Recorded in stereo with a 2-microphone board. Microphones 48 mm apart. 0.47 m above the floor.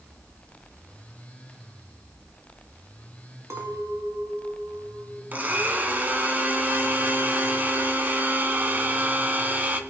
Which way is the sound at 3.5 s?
80° right.